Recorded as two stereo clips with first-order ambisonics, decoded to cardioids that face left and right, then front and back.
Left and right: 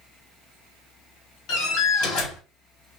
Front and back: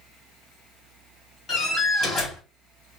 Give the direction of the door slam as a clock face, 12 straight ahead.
10 o'clock.